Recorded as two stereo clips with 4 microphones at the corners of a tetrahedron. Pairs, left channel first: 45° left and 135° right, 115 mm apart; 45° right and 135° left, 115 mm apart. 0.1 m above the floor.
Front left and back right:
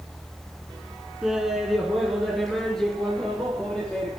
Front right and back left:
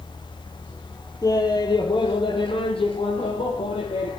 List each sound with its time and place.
1.2 s laughter: 55° right, 1.6 m; by 4.2 s 35° right, 3 m